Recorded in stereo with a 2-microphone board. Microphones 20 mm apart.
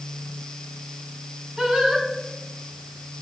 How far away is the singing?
About 3.5 m.